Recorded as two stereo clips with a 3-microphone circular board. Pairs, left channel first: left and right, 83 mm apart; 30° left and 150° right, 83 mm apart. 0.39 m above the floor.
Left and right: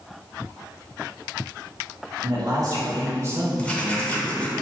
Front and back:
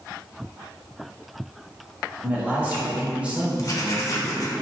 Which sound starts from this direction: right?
A man speaking, at 2.2 s.